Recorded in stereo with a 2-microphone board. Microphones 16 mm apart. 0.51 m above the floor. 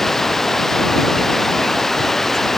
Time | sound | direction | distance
0.0 | running water | 20° left (ahead or behind) | ?